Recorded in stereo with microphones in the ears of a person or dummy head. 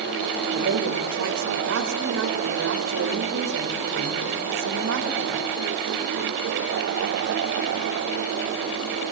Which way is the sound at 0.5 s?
75° right (ahead or behind).